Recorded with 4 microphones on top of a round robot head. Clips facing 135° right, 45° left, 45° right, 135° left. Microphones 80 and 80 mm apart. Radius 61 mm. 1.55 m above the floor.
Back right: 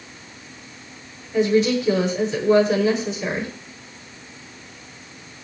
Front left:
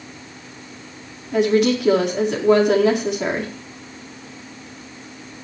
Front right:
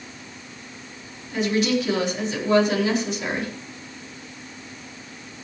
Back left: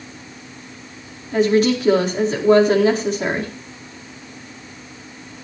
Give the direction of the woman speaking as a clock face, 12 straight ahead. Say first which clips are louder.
Front left 1 dB, back left 6 dB; 9 o'clock.